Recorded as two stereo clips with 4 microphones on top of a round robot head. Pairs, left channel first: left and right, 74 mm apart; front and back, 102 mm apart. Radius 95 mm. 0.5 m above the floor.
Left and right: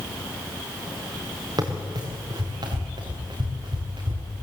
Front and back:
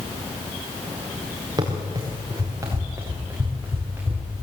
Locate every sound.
1.6 s running footsteps: 120° right, 4.5 m; by 4.2 s 100° right, 5 m